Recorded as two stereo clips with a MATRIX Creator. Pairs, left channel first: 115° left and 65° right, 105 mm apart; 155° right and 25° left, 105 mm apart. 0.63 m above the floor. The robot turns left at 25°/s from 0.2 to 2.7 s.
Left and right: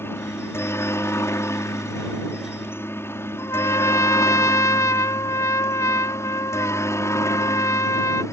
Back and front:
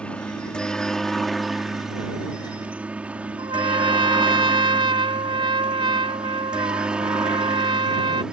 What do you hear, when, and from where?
0.0 s a helicopter: 140° left; by 8.3 s 95° left
3.4 s a trumpet: 55° left